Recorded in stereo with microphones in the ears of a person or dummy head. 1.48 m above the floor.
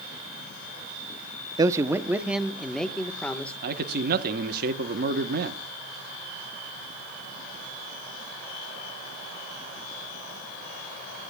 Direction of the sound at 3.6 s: 50° right (ahead or behind).